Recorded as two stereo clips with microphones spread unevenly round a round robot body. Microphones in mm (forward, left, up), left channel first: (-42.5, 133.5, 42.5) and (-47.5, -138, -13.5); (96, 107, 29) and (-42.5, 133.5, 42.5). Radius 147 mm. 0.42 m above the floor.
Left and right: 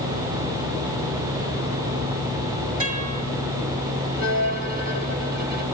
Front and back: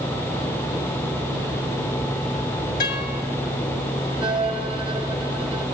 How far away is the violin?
About 2 m.